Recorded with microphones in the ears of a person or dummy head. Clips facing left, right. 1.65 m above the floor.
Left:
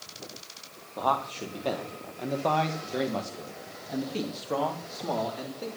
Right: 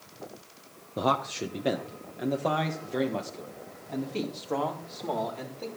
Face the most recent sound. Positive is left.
turn(degrees=10)  # may be behind; listen again after turning